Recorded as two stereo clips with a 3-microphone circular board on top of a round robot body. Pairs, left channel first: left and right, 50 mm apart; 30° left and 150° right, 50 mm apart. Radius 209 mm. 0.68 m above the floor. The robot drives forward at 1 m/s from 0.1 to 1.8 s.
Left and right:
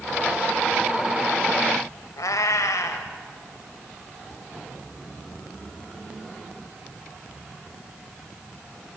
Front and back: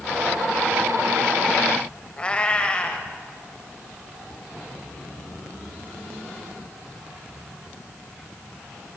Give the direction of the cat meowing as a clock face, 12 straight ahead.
9 o'clock.